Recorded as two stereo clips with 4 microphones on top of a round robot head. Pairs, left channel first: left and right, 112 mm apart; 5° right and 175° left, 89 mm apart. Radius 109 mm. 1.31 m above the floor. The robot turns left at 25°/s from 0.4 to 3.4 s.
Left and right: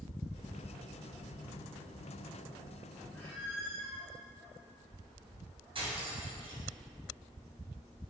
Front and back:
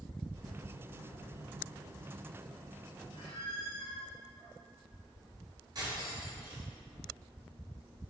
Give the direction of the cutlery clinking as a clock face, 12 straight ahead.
4 o'clock.